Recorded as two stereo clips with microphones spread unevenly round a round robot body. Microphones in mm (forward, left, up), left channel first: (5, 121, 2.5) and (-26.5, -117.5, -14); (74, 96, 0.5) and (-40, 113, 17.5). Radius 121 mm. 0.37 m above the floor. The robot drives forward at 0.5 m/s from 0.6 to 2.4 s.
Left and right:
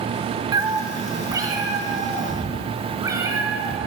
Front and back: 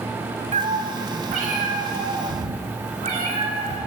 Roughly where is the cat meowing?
Behind.